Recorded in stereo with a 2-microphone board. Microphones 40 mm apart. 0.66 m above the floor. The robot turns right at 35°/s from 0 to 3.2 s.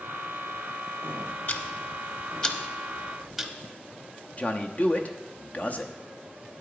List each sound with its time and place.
1.5 s ticking: 50° left (ahead or behind), 0.8 m; by 3.5 s 5° right (ahead or behind), 0.8 m
4.4 s a man speaking: 40° left (ahead or behind), 0.8 m